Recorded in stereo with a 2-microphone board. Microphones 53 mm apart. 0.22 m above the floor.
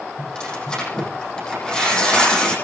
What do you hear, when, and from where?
0.2 s tearing paper: 15° left (ahead or behind), 9 m